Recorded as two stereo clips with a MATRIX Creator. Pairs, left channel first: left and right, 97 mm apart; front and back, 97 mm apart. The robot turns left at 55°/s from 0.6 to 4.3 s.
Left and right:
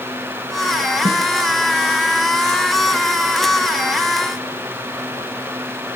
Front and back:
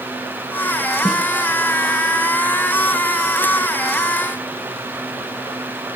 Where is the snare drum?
90° right, 2.5 m; by 1.2 s 100° right, 2.5 m.